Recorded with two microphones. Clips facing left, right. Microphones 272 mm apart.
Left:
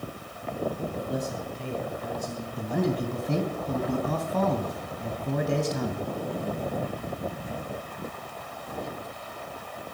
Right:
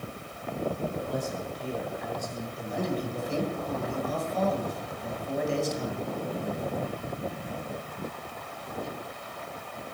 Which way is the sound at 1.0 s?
20° left (ahead or behind).